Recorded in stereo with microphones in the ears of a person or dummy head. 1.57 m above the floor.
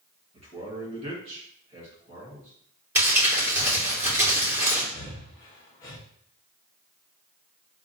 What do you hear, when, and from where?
0.3 s a man speaking: 40° right (ahead or behind), 2.0 m
3.0 s crumpling: 10° right (ahead or behind), 2.5 m
4.9 s breathing: 25° left (ahead or behind), 0.9 m